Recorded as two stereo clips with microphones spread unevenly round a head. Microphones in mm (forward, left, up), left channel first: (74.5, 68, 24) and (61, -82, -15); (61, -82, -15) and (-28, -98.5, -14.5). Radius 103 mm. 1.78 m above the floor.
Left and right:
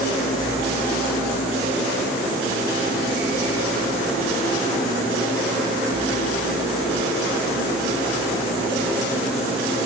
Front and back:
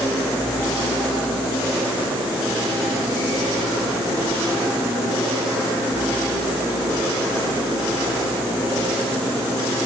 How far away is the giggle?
I don't hear a giggle.